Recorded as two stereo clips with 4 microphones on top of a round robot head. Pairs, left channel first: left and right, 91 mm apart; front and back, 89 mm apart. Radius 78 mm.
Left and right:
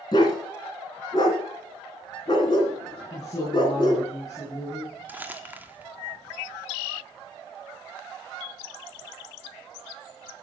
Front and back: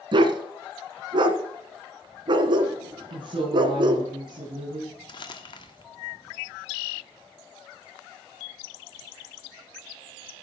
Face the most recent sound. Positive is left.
turn(degrees=-20)